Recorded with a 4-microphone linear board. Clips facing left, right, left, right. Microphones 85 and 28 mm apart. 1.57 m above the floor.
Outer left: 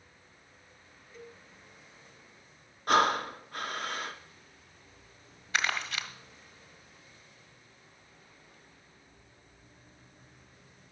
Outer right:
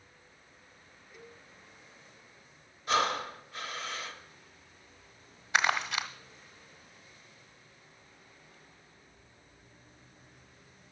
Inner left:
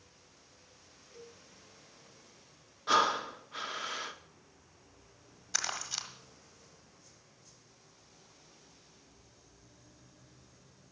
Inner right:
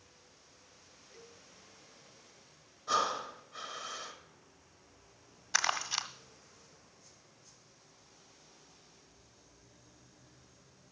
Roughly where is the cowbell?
Centre.